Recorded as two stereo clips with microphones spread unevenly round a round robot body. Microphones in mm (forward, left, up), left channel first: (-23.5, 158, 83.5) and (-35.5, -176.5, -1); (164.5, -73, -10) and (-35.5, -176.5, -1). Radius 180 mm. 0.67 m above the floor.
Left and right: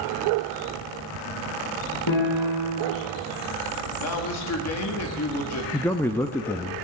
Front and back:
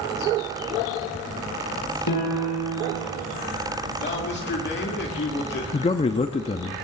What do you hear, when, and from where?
2.1 s a piano: 50° left, 8 m
4.0 s a man speaking: 40° left, 1.7 m
5.7 s a man speaking: 15° right, 0.7 m